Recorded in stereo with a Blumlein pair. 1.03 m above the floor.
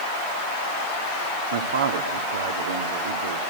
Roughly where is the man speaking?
Ahead right.